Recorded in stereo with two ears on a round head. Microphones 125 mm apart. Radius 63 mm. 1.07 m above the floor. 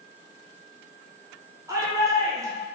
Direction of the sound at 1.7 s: 20° right (ahead or behind).